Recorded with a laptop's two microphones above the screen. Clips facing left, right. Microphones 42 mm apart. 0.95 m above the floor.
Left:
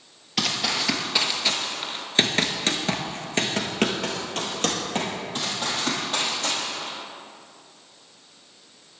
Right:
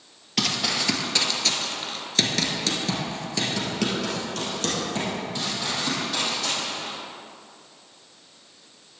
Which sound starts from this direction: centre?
Running footsteps, at 0.4 s.